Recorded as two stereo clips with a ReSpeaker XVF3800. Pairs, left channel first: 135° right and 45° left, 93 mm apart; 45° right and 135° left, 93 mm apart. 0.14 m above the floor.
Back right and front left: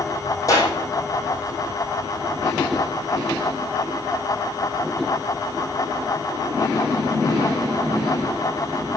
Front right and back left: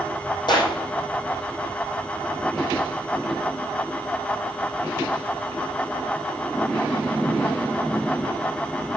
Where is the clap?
80° right, 4 m.